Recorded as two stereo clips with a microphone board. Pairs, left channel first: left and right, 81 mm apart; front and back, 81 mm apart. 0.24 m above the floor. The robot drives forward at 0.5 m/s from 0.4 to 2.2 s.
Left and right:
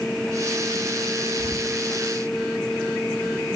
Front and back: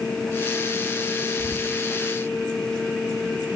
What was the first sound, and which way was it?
Whispering, 80° right.